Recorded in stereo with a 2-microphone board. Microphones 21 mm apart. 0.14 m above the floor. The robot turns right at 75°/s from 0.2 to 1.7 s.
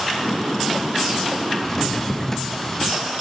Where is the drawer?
10° left (ahead or behind), 0.5 m; by 3.0 s 15° left (ahead or behind), 0.5 m.